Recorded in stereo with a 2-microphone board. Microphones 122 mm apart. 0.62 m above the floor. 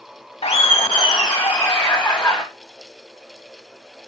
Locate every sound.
0.4 s laughter: 60° left (ahead or behind), 1.9 m; by 2.4 s 5° left (ahead or behind), 2.5 m